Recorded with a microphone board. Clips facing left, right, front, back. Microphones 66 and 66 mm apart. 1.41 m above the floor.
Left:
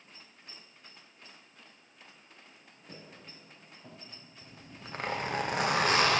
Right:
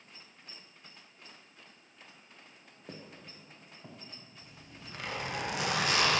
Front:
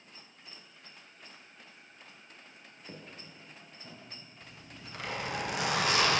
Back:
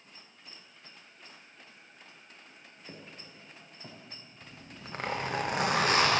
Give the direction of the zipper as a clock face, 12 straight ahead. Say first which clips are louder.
Left 4 dB, back 4 dB; 7 o'clock.